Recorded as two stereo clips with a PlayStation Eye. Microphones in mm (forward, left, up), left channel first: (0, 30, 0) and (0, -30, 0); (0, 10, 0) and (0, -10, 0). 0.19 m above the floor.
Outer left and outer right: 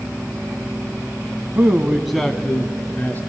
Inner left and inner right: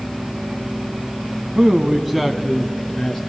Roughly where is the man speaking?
Right.